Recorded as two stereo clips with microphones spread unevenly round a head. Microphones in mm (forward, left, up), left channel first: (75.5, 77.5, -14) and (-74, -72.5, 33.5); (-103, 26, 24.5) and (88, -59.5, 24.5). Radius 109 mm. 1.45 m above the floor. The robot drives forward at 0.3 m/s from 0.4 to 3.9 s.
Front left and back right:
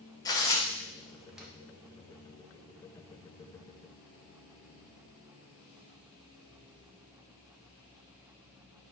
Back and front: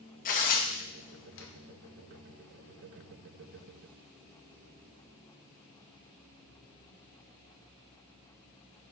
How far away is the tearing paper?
About 0.6 m.